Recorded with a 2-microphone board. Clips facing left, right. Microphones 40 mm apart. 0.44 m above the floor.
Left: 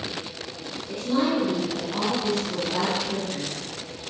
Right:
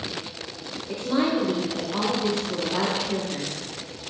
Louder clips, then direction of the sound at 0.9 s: Even; 25° right (ahead or behind).